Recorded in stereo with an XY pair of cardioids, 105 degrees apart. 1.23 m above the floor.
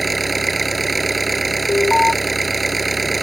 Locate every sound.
0.0 s an engine running: 20° right
1.7 s an alarm: 15° left